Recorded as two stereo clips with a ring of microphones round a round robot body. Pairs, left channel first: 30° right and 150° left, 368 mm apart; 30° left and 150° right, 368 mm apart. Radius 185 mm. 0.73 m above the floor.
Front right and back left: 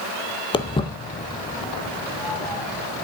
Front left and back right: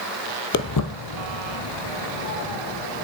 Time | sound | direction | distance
0.5 | footsteps | 30° left | 0.7 m